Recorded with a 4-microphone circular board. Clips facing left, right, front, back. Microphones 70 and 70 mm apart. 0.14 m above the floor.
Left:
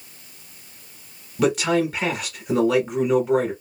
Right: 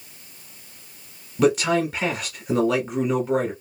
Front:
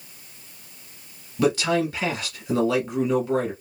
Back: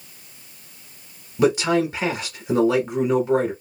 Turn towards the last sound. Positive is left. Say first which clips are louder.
# right 1 dB, back 3 dB
turn(degrees=-175)